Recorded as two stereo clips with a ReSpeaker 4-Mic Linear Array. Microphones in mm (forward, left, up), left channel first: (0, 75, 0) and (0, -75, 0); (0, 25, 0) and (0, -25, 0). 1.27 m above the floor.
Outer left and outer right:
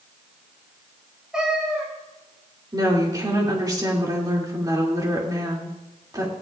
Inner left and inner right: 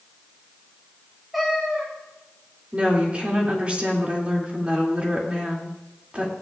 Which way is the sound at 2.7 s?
25° right (ahead or behind).